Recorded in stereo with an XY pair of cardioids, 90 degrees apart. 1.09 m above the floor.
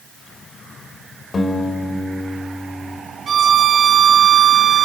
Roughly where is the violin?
Ahead right.